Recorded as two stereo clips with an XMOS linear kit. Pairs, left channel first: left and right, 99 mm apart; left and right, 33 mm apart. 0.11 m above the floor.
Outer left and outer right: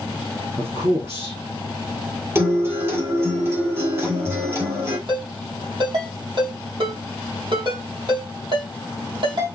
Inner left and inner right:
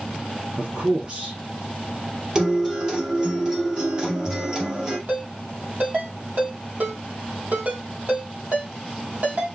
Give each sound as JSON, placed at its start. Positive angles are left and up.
{"t": 0.6, "sound": "a man speaking", "side_deg": -30, "distance_m": 2.5}
{"t": 2.4, "sound": "a guitar", "side_deg": -25, "distance_m": 3.0}
{"t": 5.1, "sound": "a ringtone", "side_deg": -50, "distance_m": 3.0}